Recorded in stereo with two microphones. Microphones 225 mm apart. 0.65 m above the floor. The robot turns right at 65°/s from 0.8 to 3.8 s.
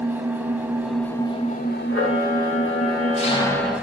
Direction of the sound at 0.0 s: 10° right.